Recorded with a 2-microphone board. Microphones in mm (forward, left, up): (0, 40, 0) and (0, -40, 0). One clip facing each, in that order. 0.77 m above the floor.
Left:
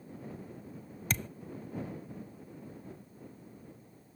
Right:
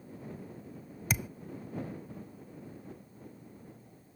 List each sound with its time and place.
1.1 s a thud: 10° right (ahead or behind)